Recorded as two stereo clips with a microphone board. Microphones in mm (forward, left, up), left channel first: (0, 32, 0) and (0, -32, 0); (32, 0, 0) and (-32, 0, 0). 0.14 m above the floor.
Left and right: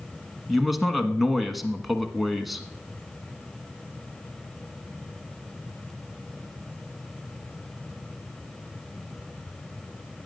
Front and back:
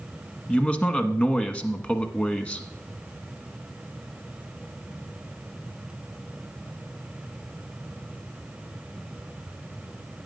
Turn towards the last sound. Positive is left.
turn(degrees=-5)